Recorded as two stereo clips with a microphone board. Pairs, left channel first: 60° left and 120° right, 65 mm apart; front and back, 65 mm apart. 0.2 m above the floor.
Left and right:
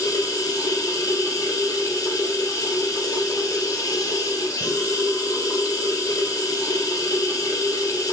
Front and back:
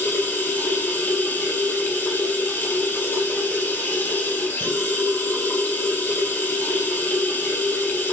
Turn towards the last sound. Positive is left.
turn(degrees=55)